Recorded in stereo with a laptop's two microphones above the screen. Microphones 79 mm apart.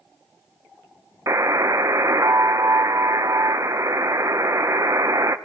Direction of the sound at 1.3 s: 40° right (ahead or behind).